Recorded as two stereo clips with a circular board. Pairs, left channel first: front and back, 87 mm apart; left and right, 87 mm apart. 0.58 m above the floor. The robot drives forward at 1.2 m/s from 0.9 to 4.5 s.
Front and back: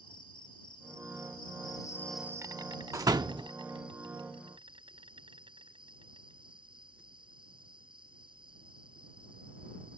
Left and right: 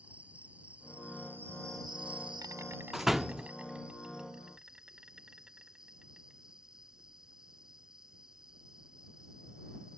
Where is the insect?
15° right; by 10.0 s 170° right.